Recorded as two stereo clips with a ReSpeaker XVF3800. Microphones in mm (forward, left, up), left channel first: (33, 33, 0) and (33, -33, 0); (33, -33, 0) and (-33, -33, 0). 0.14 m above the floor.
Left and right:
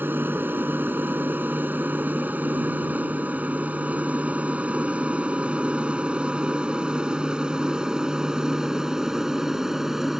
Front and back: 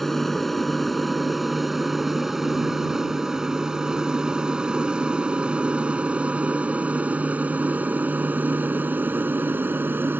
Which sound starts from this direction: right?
An aircraft, at 0.0 s.